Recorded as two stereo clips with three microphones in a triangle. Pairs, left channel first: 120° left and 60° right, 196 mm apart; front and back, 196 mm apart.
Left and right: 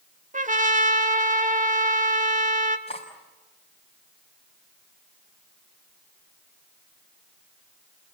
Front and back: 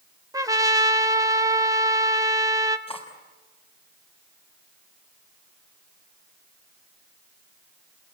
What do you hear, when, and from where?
0.3 s a trumpet: 105° right, 1.5 m
2.9 s cutlery clinking: 60° left, 5.5 m